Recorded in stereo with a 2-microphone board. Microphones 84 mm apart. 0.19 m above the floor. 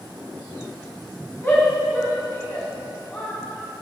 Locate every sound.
1.4 s a shout: 25° left (ahead or behind), 1.7 m